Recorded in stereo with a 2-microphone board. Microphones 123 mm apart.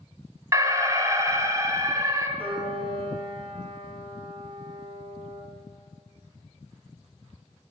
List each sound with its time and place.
0.5 s an alarm: 25° right (ahead or behind), 1.1 m
2.4 s a piano: 50° right (ahead or behind), 2.5 m